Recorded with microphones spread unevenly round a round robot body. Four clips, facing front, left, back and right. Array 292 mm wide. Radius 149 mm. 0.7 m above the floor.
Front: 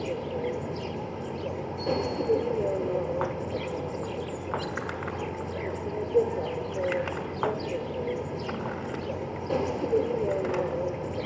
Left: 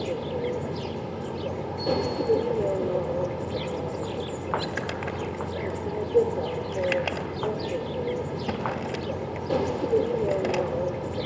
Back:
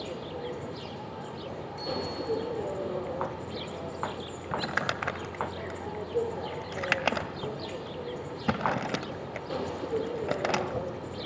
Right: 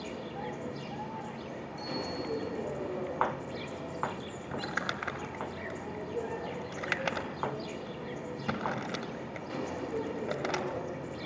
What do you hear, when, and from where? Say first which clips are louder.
0.0 s an insect: left 10 dB, front 6 dB; 70° left, 1.3 m
1.8 s a bicycle bell: left 11 dB, front 6 dB; 105° left, 9.5 m
4.5 s crumpling: left 5 dB, back 3 dB; 170° left, 1.5 m